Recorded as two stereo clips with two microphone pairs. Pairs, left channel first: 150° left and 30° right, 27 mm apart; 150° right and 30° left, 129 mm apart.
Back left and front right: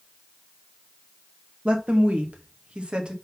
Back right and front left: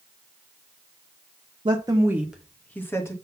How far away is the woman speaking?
About 1.0 m.